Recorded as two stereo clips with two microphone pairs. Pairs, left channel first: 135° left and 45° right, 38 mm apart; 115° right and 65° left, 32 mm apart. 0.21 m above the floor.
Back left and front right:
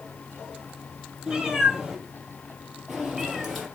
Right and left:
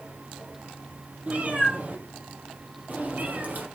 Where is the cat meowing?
30° left, 3.5 m; by 3.7 s 50° left, 2.5 m.